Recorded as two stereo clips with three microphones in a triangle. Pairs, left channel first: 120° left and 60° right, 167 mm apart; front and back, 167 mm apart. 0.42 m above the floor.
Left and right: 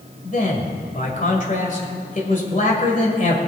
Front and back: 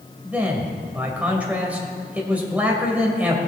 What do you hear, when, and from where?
0.2 s a man speaking: 100° left, 2 m